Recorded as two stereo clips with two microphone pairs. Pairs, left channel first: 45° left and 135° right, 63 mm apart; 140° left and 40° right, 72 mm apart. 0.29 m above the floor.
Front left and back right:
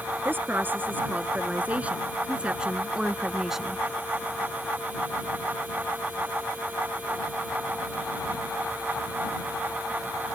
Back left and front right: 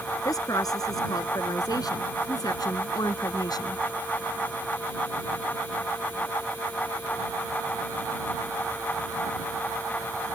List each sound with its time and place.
0.2 s a woman speaking: 170° left; by 3.8 s 140° left